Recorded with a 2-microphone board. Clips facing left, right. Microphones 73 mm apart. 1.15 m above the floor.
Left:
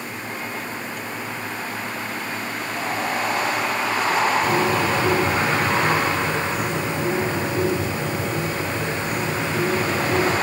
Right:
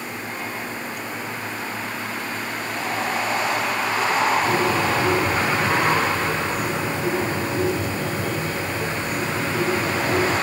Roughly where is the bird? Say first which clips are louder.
Even; left.